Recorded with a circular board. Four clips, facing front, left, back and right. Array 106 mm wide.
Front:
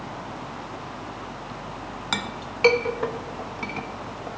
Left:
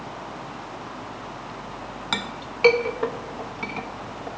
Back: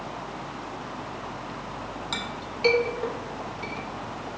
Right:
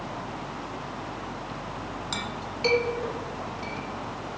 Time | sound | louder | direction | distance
2.1 | a clink | left 2 dB, front 3 dB | 45° left | 0.6 m